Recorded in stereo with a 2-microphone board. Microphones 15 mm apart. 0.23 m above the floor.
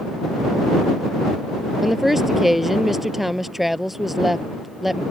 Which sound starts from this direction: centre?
A woman speaking, at 1.8 s.